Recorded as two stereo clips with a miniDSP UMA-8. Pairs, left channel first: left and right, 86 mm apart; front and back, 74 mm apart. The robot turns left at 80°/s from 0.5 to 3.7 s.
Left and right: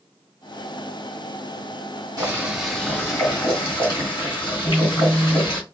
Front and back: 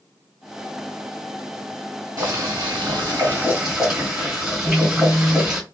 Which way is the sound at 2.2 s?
135° right.